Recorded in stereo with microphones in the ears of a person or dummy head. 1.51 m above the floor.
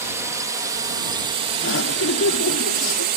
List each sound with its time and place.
0.0 s a drone: 10° right (ahead or behind); by 3.2 s 45° right (ahead or behind)
1.6 s laughter: 75° left (ahead or behind)